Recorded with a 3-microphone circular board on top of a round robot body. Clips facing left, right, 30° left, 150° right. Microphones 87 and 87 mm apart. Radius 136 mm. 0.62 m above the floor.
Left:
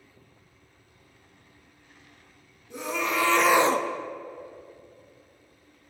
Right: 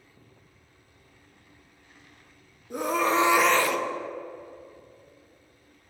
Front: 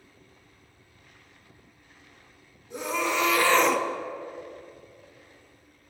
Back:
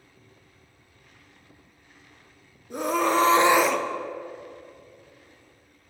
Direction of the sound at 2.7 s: 115° right.